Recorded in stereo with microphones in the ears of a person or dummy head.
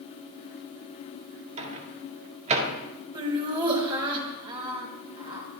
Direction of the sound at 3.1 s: 25° right (ahead or behind).